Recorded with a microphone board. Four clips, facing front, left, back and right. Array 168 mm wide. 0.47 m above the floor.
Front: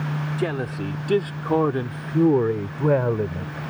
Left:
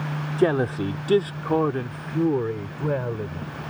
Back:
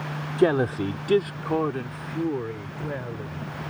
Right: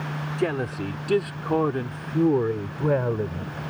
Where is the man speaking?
145° left; by 3.6 s 15° right.